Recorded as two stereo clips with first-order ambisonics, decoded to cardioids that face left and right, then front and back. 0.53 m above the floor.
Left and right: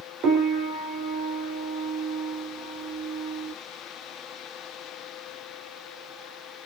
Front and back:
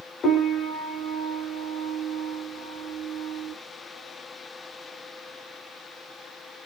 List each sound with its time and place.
0.2 s a piano: 55° right, 0.8 m